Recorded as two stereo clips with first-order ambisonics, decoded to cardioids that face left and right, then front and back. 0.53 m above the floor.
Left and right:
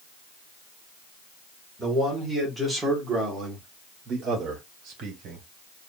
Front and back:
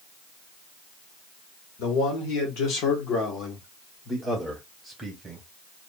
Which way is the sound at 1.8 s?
Straight ahead.